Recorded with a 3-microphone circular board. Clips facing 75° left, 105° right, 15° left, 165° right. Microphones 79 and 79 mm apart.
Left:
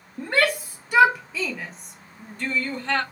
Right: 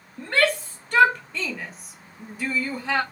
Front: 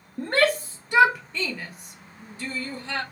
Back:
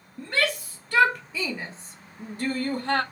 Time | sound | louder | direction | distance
0.2 | a shout | even, front 5 dB | 5° left | 0.8 m